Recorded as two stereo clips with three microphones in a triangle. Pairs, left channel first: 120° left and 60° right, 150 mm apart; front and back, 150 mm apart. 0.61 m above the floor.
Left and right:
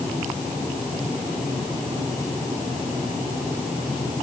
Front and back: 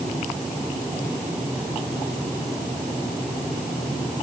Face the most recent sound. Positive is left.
No sound to turn to.